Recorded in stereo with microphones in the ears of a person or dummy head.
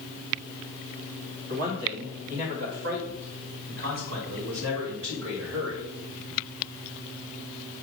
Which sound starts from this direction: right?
A man speaking, at 1.5 s.